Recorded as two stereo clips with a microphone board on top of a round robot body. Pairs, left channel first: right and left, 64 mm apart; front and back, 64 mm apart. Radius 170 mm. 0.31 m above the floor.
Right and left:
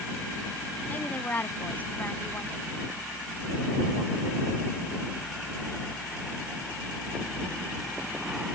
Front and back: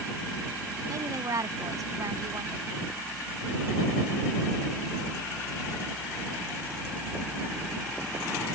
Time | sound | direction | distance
0.9 | a woman speaking | 155° right | ?